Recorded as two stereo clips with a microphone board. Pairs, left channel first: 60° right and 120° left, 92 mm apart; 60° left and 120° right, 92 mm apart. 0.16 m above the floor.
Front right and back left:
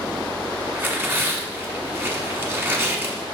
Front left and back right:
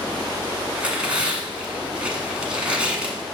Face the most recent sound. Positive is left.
turn(degrees=170)